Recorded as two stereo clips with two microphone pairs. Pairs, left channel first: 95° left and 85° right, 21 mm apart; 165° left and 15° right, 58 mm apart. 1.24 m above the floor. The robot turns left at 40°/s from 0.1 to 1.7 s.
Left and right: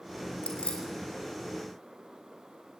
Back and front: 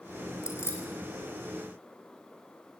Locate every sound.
0.4 s keys jangling: 130° left, 4 m; by 0.8 s 115° left, 4 m